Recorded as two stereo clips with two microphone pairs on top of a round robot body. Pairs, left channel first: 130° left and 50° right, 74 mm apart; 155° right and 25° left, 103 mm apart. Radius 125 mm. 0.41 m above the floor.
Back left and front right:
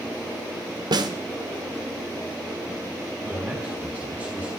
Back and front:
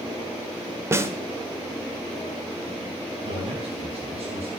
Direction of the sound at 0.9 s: 25° right.